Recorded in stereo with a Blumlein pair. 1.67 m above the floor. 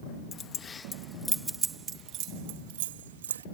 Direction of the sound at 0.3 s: 25° left.